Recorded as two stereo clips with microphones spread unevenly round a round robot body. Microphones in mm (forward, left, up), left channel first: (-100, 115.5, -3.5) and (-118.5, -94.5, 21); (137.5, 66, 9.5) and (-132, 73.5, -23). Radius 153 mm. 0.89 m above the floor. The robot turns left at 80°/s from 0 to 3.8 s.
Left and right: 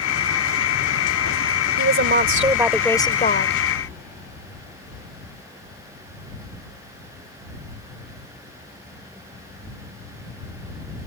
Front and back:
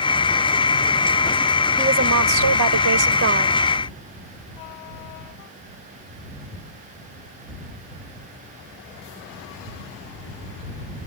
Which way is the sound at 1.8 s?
105° right.